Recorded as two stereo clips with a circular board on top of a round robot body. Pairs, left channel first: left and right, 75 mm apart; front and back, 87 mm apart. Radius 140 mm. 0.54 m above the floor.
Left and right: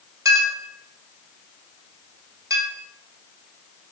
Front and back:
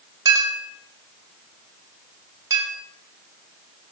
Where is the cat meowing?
I don't hear a cat meowing.